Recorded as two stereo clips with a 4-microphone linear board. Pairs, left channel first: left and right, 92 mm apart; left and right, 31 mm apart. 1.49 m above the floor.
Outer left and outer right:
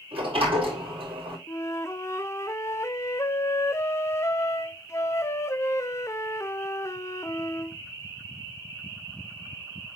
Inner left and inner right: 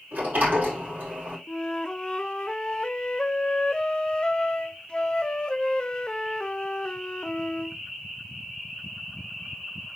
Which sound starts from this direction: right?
A sliding door, at 0.1 s.